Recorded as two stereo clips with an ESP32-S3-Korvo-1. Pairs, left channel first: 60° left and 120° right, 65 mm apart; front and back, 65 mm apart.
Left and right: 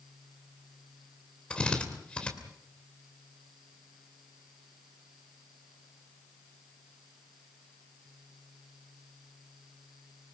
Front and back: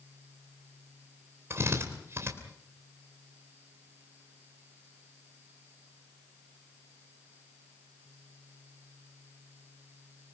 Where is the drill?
135° left, 3 m.